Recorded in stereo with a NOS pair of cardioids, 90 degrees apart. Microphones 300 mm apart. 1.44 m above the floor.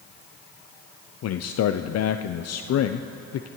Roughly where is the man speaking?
Ahead left.